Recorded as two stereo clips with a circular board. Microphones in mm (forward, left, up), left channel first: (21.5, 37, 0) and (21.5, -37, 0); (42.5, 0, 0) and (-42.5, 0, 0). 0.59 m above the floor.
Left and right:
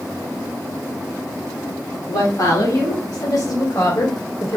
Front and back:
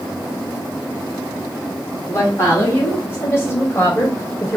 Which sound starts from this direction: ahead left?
A woman speaking, at 2.1 s.